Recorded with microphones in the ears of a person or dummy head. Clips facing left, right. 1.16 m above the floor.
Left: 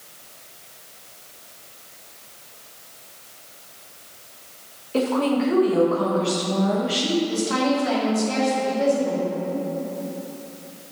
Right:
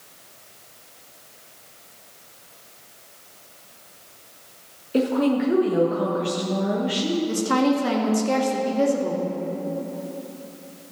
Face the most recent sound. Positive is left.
turn(degrees=-60)  # may be behind; listen again after turning